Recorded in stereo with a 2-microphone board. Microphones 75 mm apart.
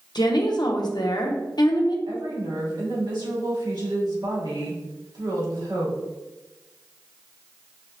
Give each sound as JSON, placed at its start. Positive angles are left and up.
{"t": 0.1, "sound": "a woman speaking", "side_deg": 70, "distance_m": 0.8}
{"t": 2.1, "sound": "a woman speaking", "side_deg": -80, "distance_m": 2.0}